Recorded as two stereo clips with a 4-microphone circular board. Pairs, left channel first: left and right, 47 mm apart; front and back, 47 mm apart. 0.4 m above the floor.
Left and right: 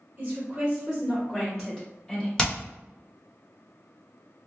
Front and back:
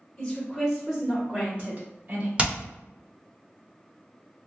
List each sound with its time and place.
0.2 s a woman speaking: 45° right, 1.6 m; by 2.3 s 145° left, 2.5 m
2.4 s hammering: 145° left, 1.0 m